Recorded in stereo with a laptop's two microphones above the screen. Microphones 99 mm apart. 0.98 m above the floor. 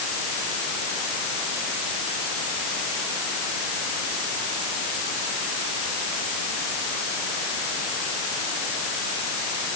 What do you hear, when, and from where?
Only background noise.